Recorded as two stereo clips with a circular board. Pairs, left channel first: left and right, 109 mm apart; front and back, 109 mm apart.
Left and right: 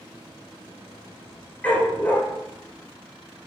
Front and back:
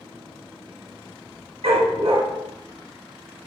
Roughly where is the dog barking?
Behind.